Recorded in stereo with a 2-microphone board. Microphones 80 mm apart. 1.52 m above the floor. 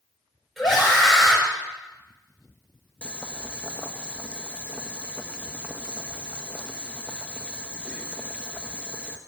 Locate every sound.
0.6 s a scream: centre (ahead or behind), 5.5 m
3.0 s boiling: 15° left (ahead or behind), 0.8 m